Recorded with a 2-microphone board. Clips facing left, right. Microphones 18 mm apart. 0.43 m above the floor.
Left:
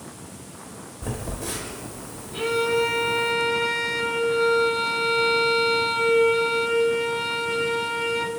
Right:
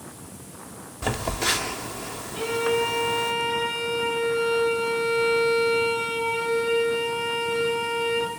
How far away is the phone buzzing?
About 1.3 m.